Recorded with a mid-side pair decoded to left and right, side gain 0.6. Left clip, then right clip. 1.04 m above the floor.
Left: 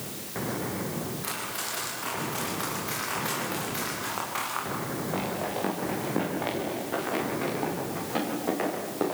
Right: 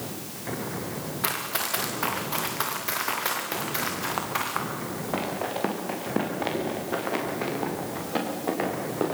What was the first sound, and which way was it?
Running footsteps, 55° right.